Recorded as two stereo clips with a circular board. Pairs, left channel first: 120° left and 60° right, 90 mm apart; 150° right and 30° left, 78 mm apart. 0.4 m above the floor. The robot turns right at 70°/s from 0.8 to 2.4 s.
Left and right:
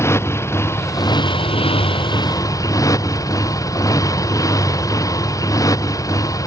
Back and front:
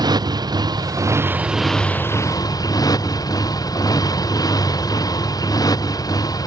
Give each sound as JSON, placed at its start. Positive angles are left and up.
{"t": 0.0, "sound": "a motorcycle", "azimuth_deg": 60}